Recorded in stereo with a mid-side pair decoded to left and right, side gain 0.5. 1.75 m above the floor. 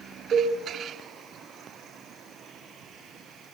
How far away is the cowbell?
About 8.5 m.